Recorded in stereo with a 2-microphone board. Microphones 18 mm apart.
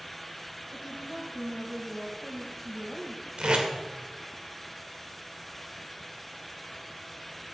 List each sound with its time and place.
0.7 s a woman speaking: 5° right (ahead or behind), 5.5 m
3.4 s tape being pulled: 75° right (ahead or behind), 2.5 m